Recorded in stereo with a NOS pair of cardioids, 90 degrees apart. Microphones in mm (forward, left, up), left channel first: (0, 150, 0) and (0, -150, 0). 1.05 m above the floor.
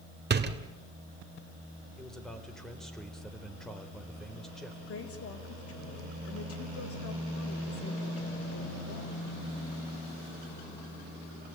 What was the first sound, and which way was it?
A door slam, 35° right.